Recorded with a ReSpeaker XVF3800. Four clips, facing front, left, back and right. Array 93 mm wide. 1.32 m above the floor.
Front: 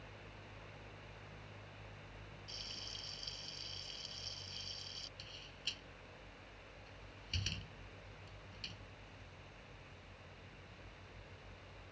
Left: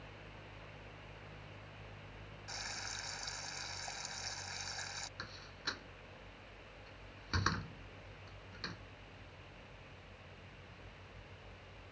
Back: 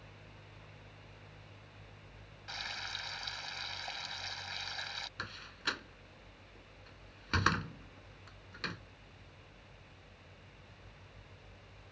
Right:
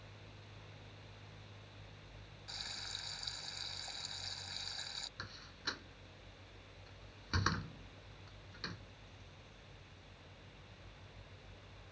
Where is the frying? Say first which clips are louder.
Left 5 dB, back 16 dB; 160° left.